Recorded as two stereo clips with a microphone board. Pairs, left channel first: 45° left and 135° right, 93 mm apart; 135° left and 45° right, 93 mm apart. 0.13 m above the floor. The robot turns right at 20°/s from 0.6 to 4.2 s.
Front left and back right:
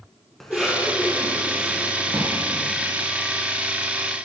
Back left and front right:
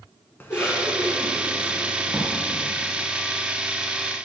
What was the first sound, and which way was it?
A cough, 125° left.